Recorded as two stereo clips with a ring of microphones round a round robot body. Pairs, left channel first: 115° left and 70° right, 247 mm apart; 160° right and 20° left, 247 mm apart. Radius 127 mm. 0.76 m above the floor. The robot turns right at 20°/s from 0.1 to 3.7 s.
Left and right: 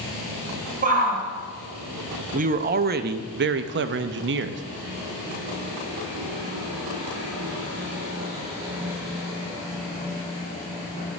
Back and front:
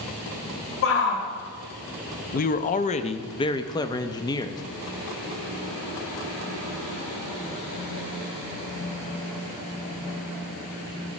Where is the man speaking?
115° right, 0.5 m; by 4.6 s 90° right, 0.5 m.